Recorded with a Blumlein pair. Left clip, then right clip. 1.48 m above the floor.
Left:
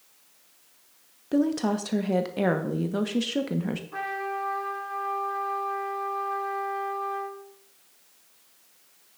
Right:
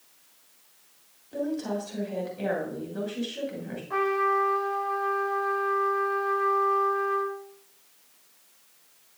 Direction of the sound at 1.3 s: 50° left.